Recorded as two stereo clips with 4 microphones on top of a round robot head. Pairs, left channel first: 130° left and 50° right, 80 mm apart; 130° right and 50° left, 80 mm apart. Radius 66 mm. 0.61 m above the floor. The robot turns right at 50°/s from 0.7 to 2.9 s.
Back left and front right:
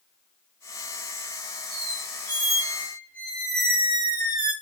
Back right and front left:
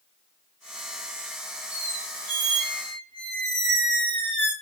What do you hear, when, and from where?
1.7 s a squeak: 35° right, 1.8 m; by 4.5 s 25° left, 1.8 m